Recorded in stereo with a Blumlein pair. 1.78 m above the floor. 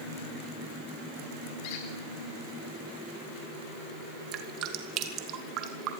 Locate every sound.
1.6 s a squeak: 40° left, 4.5 m
4.3 s dripping: 35° right, 2.5 m